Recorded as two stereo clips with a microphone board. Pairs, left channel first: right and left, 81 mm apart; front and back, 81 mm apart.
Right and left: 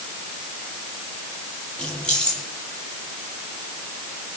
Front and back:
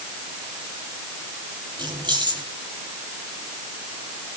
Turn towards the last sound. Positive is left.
turn(degrees=-165)